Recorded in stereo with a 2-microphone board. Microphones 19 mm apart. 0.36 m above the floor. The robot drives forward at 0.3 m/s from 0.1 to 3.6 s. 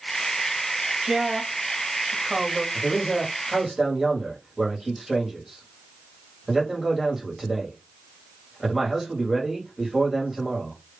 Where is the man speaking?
25° right (ahead or behind), 1.6 m.